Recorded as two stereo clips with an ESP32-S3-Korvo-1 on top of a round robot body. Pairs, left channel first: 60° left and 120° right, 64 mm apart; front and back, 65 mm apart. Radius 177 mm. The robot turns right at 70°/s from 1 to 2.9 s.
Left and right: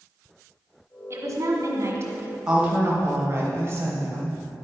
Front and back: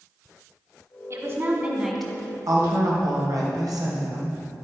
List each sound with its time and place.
1.1 s a woman speaking: 155° right, 1.9 m; by 2.4 s 65° right, 1.9 m
2.5 s a woman speaking: 160° left, 2.5 m; by 4.4 s 170° right, 2.5 m